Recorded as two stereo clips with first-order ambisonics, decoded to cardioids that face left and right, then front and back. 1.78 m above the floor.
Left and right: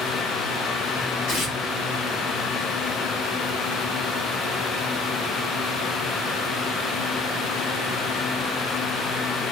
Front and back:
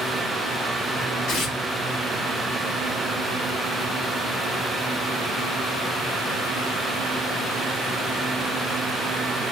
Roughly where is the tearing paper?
Ahead left.